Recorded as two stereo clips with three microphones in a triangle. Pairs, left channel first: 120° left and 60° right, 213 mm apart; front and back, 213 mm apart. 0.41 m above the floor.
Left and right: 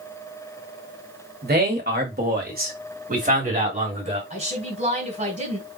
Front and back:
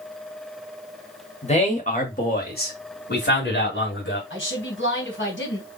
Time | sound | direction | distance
1.4 | a man speaking | 50° right | 1.7 m
4.3 | a woman speaking | 5° right | 2.5 m